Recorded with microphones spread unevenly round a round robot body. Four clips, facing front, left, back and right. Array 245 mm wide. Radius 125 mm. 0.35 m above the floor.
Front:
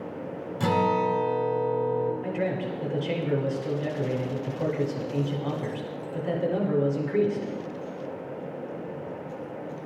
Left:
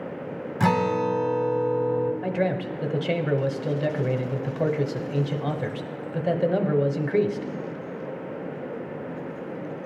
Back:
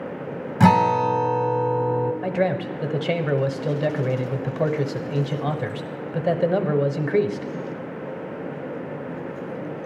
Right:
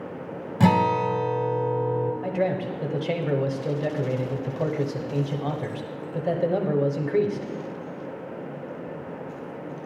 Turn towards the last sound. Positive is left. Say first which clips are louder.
# even, back 5 dB
turn(degrees=155)